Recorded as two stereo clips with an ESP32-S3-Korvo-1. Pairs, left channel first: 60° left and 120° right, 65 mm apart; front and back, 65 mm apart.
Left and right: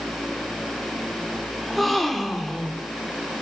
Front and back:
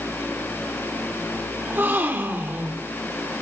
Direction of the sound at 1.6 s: 145° left.